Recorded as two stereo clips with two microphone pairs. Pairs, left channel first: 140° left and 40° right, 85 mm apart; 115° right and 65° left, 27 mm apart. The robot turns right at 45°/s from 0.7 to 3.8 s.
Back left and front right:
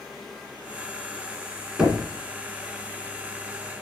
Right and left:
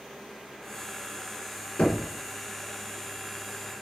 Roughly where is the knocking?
Behind right.